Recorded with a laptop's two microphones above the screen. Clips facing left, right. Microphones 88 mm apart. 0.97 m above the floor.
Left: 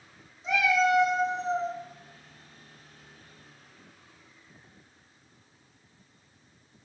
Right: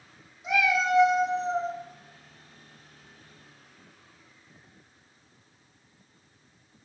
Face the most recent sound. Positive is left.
turn(degrees=-45)  # may be behind; listen again after turning